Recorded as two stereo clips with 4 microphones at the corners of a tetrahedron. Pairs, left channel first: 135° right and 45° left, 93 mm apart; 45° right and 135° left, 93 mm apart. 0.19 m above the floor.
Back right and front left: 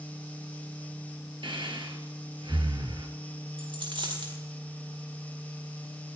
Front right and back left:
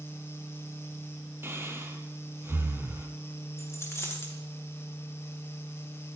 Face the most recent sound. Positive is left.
turn(degrees=15)